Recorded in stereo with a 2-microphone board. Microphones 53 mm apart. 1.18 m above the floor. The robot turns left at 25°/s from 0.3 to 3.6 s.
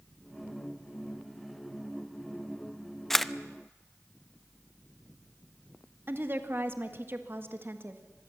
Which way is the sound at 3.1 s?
5° left (ahead or behind).